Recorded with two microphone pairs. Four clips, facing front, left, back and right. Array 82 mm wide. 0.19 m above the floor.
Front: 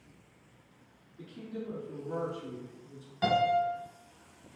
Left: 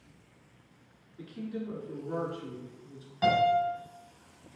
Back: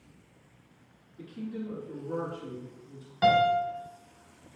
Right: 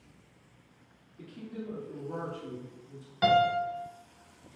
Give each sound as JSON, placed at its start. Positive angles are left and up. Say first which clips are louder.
{"t": 1.2, "sound": "a woman speaking", "louder": "left 4 dB, back 4 dB", "azimuth_deg": 95, "distance_m": 2.0}
{"t": 3.2, "sound": "a piano", "louder": "even, back 4 dB", "azimuth_deg": -160, "distance_m": 0.8}